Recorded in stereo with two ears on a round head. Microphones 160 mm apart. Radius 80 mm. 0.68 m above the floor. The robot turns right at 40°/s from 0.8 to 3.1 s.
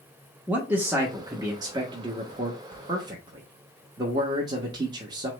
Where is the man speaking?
10° right (ahead or behind), 0.9 m; by 5.3 s 25° right (ahead or behind), 0.9 m.